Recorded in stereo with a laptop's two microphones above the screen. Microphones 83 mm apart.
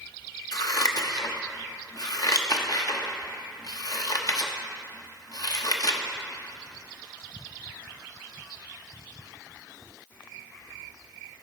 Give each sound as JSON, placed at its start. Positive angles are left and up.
{"t": 0.5, "sound": "scissors", "side_deg": 50, "distance_m": 0.7}